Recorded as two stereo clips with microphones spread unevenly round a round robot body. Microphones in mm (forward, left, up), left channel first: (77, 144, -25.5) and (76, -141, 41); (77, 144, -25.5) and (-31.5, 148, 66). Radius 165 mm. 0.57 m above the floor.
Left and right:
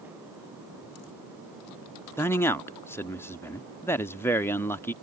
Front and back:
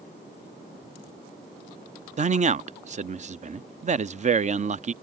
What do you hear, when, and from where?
2.2 s a man speaking: 115° left